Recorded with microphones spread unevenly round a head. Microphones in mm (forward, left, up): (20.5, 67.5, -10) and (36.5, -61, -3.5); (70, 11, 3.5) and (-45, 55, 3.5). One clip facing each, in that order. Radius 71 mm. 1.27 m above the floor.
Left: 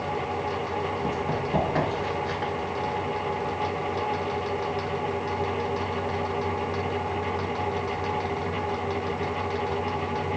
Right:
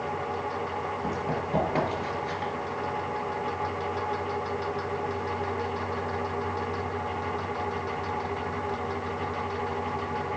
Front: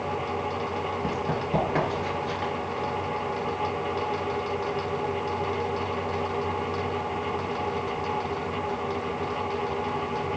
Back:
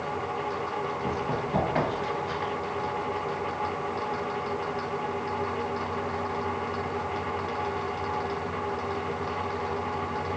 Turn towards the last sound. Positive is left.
turn(degrees=-50)